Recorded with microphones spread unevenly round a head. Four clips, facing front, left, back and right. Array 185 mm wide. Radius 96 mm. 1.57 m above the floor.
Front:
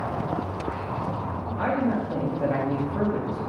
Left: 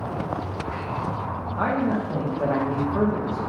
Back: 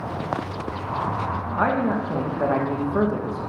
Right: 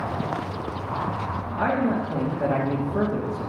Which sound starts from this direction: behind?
A man speaking, at 1.6 s.